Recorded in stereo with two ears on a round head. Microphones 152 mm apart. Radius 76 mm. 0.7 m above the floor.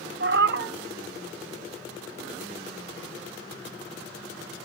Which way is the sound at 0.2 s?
65° right (ahead or behind).